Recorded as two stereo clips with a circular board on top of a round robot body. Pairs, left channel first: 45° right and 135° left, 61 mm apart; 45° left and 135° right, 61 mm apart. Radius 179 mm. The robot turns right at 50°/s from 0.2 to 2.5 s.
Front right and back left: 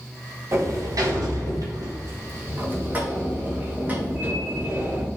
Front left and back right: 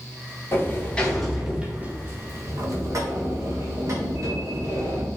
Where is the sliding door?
95° left, 2.5 m; by 5.1 s 165° right, 2.5 m.